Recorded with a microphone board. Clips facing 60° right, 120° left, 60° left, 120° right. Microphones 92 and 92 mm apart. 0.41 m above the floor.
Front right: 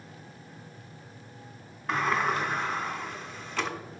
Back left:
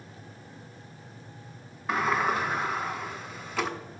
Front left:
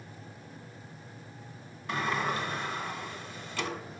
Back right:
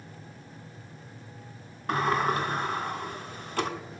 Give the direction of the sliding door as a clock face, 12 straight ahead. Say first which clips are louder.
Back left 1 dB, back right 5 dB; 5 o'clock.